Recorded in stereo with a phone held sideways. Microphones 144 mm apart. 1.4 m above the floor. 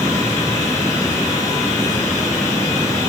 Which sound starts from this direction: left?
Running water, at 0.0 s.